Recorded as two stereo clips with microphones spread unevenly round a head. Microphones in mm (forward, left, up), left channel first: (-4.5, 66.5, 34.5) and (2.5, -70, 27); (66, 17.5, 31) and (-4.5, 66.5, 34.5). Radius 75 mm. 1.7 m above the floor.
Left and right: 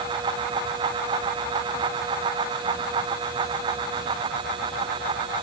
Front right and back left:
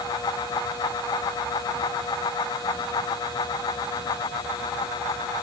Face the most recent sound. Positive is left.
No sound to turn to.